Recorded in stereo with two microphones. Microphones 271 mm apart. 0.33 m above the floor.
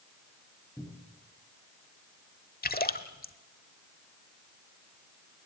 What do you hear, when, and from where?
0.8 s a cupboard door: 5° left (ahead or behind), 4.5 m
2.6 s a splash: 35° left (ahead or behind), 1.3 m